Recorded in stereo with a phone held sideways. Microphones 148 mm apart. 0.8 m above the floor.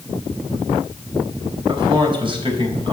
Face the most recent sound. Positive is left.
turn(degrees=-40)  # may be behind; listen again after turning